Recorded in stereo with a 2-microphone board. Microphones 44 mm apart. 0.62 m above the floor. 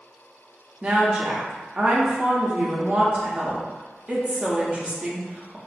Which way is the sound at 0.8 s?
30° right (ahead or behind).